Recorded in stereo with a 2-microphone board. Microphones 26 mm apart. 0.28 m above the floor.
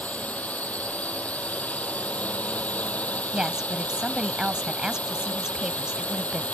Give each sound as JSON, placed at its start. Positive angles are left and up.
{"t": 0.0, "sound": "a drone", "side_deg": 80}
{"t": 3.3, "sound": "a woman speaking", "side_deg": -30}